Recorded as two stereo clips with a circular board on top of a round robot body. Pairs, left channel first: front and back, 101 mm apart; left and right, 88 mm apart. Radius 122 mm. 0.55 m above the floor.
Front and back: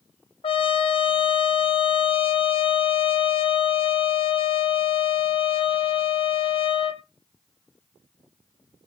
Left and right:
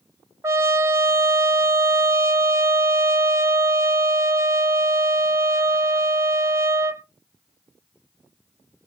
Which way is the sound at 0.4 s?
30° right.